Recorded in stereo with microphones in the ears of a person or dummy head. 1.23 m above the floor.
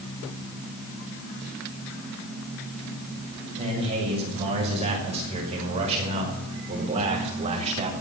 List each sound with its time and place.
3.6 s a man speaking: 30° right (ahead or behind), 7 m; by 7.9 s 35° right (ahead or behind), 3.5 m